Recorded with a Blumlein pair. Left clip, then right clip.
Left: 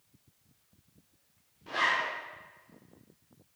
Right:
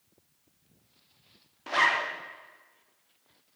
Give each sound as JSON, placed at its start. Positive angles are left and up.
{"t": 1.7, "sound": "a zipper", "azimuth_deg": -60, "distance_m": 0.9}